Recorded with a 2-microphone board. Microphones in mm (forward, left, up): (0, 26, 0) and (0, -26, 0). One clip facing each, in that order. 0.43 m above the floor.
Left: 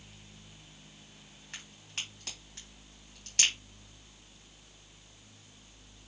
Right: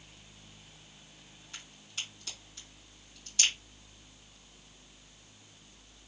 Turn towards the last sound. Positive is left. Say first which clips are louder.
# left 1 dB
turn(degrees=60)  # may be behind; listen again after turning